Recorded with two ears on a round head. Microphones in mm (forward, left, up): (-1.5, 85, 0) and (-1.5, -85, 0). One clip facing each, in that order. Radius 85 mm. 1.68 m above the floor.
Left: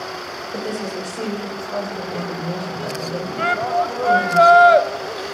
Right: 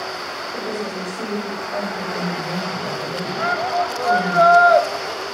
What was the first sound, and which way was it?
A woman speaking, 35° left (ahead or behind).